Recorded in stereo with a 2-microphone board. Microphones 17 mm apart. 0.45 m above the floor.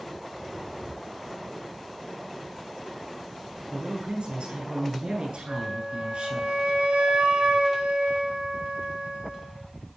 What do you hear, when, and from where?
3.7 s a man speaking: 70° right (ahead or behind), 8.5 m
5.5 s a flute: 75° right (ahead or behind), 5 m